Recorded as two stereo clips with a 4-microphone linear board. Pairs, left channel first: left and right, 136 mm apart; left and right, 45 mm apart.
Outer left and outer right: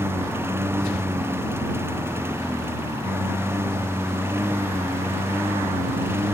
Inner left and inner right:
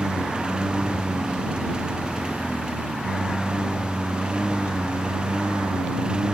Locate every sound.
0.0 s a lawn mower: 20° right (ahead or behind)